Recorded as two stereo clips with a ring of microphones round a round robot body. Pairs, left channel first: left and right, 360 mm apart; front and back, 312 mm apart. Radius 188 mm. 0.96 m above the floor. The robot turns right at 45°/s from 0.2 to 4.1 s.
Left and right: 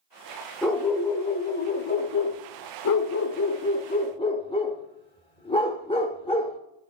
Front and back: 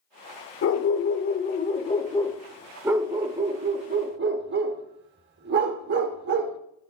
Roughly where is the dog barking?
Ahead.